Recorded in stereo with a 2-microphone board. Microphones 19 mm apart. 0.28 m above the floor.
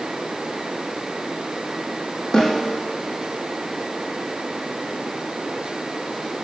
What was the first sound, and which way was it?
A snare drum, 40° left (ahead or behind).